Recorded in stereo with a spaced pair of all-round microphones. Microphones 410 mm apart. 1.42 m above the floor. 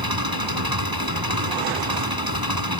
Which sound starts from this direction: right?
An engine running, at 0.0 s.